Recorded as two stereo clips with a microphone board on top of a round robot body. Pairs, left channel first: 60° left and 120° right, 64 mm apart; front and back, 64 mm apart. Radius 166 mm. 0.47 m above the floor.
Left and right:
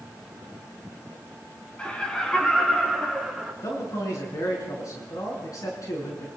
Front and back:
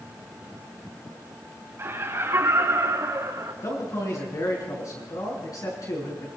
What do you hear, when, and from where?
1.8 s laughter: 135° left, 5 m; by 3.5 s 155° left, 6 m
3.6 s a man speaking: 30° left, 7 m